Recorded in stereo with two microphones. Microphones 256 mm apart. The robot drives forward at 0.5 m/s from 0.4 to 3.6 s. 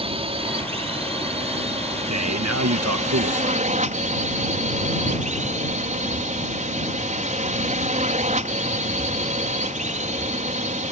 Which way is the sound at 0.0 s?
25° right (ahead or behind).